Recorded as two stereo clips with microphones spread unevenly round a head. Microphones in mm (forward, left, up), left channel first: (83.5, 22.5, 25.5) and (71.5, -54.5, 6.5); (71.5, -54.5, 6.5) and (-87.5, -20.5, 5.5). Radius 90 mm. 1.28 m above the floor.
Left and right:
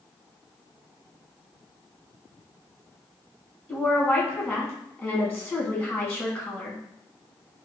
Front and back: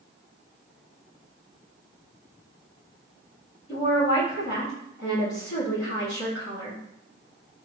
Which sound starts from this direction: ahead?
A woman speaking, at 3.7 s.